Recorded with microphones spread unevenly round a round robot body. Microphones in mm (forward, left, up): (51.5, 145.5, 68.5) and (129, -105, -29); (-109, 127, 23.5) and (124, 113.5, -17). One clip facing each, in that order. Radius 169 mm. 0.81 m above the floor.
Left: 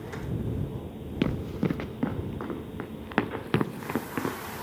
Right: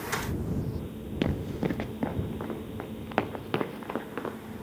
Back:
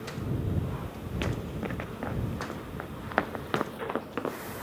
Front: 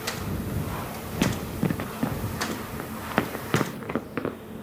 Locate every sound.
1.2 s running footsteps: 35° left; by 4.4 s 65° left